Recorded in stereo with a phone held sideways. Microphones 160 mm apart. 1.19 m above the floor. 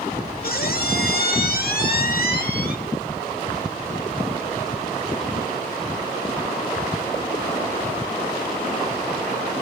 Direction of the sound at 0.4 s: 70° left (ahead or behind).